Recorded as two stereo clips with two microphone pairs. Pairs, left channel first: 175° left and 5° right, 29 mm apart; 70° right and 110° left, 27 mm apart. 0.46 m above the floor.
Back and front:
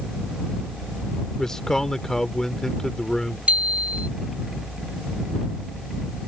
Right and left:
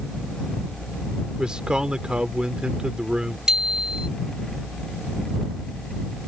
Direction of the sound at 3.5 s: 40° left.